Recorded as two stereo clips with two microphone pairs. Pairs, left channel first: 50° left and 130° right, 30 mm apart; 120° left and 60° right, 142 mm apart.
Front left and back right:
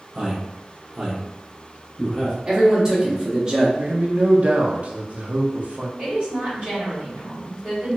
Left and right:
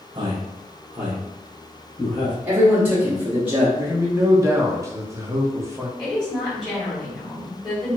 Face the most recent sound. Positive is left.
turn(degrees=180)